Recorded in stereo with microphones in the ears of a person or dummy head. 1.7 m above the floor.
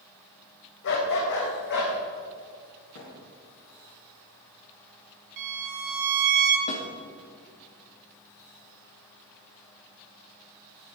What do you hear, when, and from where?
0.8 s a dog barking: 65° left (ahead or behind), 3 m; by 1.9 s 60° left (ahead or behind), 4 m
3.0 s a thud: 65° left (ahead or behind), 4.5 m
5.4 s a violin: 65° right (ahead or behind), 1.3 m
6.7 s a snare drum: 45° left (ahead or behind), 2 m